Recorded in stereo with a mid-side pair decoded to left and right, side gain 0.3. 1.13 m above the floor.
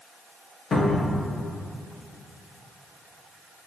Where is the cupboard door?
60° left, 0.7 m.